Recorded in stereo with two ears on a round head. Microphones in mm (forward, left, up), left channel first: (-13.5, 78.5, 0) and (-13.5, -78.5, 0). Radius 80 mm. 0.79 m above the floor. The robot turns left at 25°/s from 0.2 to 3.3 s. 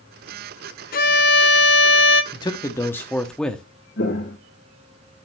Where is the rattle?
I don't hear a rattle.